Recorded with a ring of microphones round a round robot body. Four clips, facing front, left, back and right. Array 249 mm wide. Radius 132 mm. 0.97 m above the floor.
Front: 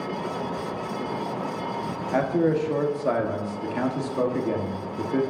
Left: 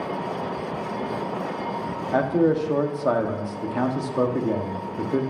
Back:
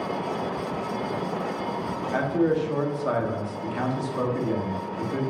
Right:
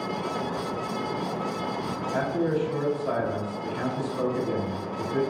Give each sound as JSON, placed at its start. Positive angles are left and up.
{"t": 2.1, "sound": "a man speaking", "azimuth_deg": 65, "distance_m": 1.5}